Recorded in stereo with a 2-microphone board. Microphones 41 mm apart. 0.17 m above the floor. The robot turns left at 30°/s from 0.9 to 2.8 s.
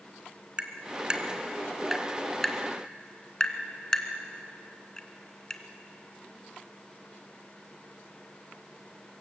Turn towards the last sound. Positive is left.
turn(degrees=15)  # may be behind; listen again after turning